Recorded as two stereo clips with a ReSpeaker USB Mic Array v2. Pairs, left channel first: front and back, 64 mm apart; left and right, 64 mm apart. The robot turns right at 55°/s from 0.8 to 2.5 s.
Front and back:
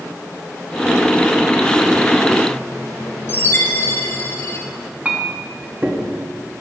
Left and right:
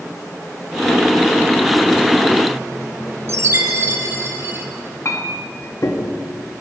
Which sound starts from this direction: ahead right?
A chime, at 3.3 s.